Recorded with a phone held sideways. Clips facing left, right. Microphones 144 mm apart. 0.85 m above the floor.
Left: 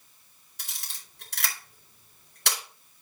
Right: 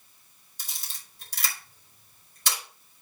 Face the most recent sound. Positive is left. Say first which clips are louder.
# even
turn(degrees=70)  # may be behind; listen again after turning